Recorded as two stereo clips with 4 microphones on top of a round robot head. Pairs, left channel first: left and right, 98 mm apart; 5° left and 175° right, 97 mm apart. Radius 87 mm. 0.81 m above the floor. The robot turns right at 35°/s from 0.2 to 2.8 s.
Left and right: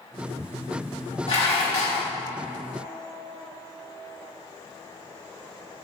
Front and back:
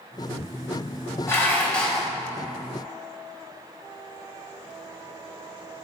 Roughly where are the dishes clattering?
Left.